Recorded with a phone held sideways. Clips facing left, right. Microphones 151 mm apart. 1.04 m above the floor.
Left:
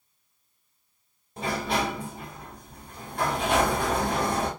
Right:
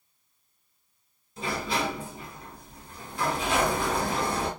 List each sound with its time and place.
1.4 s a sliding door: 55° left (ahead or behind), 1.3 m